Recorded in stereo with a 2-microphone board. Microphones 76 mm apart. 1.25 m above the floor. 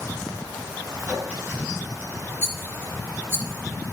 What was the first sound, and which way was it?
A clink, 15° right (ahead or behind).